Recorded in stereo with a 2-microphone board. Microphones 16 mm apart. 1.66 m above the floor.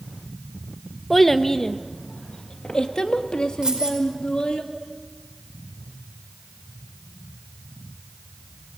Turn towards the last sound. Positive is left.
turn(degrees=-55)  # may be behind; listen again after turning